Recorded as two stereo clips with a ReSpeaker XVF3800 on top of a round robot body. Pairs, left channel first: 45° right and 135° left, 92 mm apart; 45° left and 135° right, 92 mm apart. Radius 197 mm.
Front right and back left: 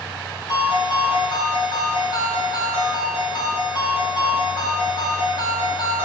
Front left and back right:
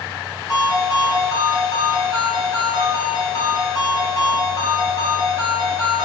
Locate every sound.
0.5 s a ringtone: 10° right, 1.9 m